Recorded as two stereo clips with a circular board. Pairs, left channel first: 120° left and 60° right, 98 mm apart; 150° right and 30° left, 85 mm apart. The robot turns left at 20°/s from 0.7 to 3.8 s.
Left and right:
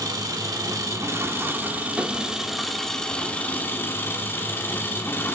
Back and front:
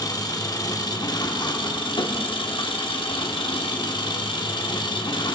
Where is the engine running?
110° right, 1.2 m; by 5.3 s 175° right, 1.2 m.